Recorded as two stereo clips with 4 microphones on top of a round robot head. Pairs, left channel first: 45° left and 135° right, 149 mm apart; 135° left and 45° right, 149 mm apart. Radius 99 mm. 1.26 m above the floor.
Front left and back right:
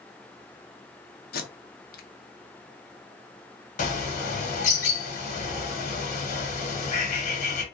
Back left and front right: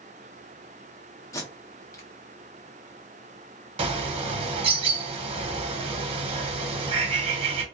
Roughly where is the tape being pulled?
Ahead left.